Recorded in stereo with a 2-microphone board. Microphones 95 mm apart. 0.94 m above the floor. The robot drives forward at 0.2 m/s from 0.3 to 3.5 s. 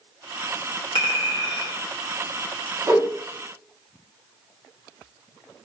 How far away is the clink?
About 1.0 m.